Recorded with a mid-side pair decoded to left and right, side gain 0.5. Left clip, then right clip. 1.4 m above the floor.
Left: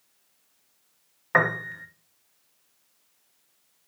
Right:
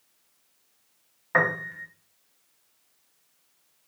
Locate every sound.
1.3 s a piano: 25° left, 0.9 m